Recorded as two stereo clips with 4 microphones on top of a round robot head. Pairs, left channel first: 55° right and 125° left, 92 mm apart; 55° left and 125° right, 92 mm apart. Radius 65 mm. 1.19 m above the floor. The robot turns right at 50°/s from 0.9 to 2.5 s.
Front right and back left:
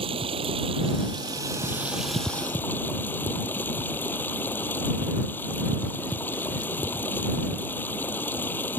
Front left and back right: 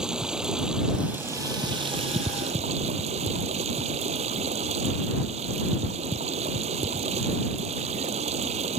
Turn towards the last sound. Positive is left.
turn(degrees=-125)